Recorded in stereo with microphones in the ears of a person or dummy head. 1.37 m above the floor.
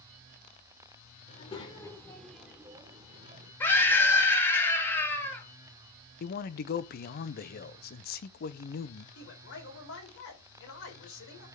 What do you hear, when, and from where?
1.3 s a child speaking: 40° left (ahead or behind), 2.5 m; by 3.5 s 35° right (ahead or behind), 2.5 m
3.6 s a scream: 15° left (ahead or behind), 3 m
6.2 s a man speaking: 50° left (ahead or behind), 0.8 m
9.2 s a man speaking: 70° left (ahead or behind), 4.5 m